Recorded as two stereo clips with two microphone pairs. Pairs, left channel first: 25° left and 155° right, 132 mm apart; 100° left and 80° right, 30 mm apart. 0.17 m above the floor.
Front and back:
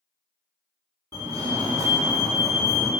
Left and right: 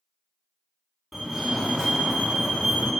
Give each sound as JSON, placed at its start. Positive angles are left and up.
{"t": 1.1, "sound": "a fire alarm", "azimuth_deg": -170, "distance_m": 2.0}